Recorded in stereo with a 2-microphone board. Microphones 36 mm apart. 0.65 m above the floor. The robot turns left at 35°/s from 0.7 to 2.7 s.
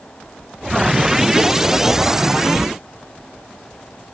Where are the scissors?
I don't hear scissors.